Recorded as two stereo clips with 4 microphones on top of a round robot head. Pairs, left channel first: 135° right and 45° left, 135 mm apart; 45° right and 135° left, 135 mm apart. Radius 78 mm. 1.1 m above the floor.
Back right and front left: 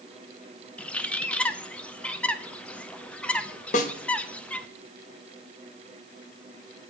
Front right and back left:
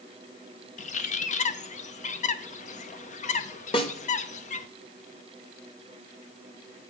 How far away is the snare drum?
About 1.1 m.